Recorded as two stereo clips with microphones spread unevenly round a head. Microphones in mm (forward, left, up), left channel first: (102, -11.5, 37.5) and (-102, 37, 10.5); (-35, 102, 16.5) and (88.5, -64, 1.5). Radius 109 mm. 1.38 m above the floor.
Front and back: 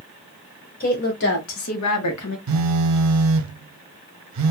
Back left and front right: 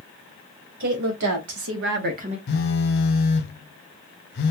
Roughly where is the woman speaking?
Ahead right.